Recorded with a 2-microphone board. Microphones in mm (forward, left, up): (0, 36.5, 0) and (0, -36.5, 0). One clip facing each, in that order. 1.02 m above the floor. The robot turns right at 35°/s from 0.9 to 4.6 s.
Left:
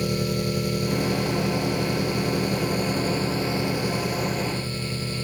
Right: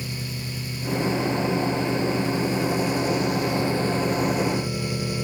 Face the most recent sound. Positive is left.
turn(degrees=-165)